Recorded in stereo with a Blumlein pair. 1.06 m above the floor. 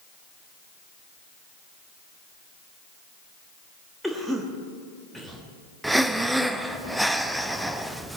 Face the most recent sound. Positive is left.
turn(degrees=-5)